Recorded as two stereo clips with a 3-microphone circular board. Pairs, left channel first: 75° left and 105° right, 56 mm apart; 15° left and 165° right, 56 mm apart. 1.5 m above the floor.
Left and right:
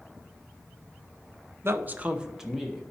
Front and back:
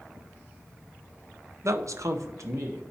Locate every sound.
1.6 s a man speaking: 145° right, 0.6 m; by 2.8 s 165° left, 1.2 m